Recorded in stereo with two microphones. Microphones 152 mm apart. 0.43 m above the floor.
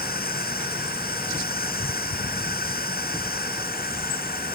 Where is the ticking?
No ticking in this recording.